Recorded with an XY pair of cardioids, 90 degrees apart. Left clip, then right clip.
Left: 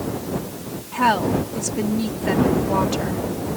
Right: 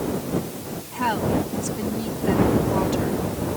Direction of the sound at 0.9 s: 55° left.